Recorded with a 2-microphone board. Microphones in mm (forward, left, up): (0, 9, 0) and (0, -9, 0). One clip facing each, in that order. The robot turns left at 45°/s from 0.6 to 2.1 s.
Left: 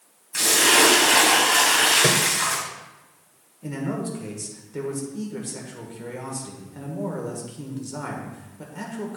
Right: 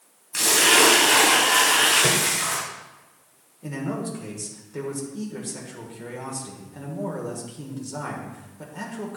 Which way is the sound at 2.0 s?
35° left (ahead or behind).